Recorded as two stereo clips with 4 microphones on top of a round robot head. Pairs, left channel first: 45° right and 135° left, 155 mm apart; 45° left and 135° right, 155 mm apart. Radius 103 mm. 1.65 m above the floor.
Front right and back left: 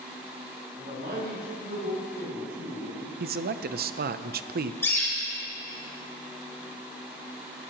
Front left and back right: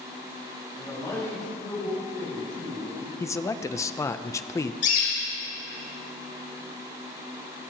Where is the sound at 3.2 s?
115° left, 0.6 m.